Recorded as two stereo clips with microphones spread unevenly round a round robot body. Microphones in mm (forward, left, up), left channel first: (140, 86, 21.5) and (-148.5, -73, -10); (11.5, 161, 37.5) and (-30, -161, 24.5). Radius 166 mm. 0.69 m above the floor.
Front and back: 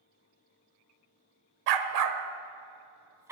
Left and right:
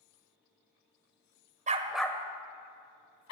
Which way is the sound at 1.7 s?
165° right.